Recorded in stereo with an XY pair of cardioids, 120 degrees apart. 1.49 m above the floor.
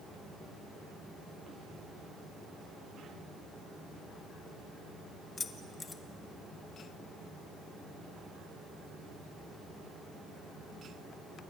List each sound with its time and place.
5.4 s keys jangling: 25° left, 1.5 m